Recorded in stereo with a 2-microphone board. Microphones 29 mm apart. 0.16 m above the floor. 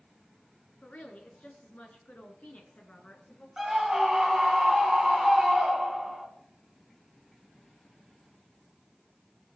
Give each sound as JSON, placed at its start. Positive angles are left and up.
{"t": 0.8, "sound": "a woman speaking", "side_deg": 55, "distance_m": 2.5}
{"t": 3.6, "sound": "a scream", "side_deg": -10, "distance_m": 1.9}